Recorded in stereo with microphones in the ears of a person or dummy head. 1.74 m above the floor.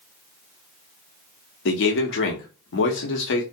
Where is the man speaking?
55° left (ahead or behind), 0.9 m.